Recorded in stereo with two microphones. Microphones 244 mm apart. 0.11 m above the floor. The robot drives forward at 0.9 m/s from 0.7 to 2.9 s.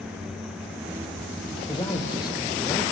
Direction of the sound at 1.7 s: 20° left (ahead or behind).